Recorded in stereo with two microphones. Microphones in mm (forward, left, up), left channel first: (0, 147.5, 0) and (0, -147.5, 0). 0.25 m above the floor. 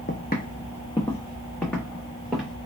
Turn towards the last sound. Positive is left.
turn(degrees=0)  # may be behind; listen again after turning